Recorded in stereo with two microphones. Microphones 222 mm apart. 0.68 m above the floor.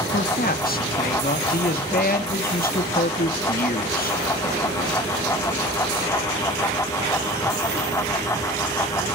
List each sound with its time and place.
0.1 s a man speaking: 40° left (ahead or behind), 0.7 m